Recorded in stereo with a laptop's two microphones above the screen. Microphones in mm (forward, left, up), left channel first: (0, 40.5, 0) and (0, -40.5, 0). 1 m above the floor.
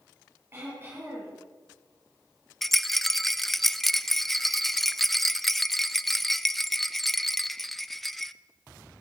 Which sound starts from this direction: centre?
A rattle, at 2.6 s.